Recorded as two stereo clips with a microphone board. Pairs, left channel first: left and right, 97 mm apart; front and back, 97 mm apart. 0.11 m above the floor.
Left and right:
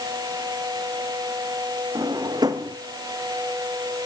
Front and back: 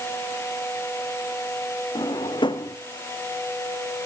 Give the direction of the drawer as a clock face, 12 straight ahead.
1 o'clock.